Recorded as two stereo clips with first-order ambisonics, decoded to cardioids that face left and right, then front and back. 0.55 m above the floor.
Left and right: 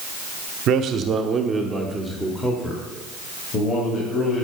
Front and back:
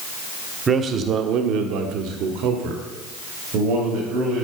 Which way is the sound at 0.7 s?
115° right.